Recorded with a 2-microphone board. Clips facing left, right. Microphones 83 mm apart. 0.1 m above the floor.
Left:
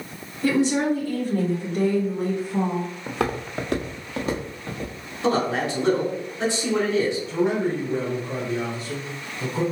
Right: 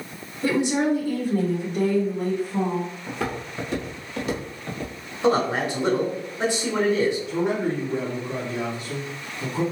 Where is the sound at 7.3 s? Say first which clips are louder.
Left 1 dB; 35° left (ahead or behind), 2.0 m.